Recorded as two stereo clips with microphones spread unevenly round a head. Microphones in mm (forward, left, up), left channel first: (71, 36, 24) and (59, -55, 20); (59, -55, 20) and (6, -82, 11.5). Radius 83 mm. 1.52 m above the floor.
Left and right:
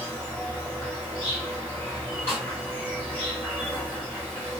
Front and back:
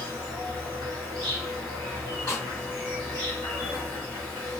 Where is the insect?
170° left, 0.9 m.